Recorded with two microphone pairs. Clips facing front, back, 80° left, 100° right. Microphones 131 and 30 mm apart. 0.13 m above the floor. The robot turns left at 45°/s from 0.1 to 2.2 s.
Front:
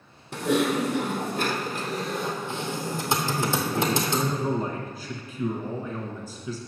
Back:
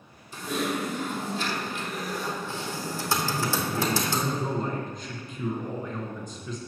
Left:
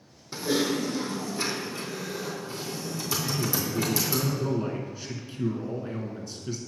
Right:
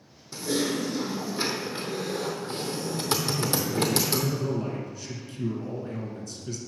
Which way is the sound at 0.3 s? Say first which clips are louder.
Front 6 dB, left 1 dB; 15° left.